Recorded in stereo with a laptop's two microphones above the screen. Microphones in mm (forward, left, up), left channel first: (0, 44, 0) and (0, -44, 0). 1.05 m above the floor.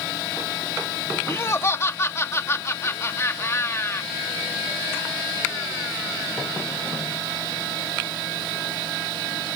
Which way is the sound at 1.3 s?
30° left (ahead or behind).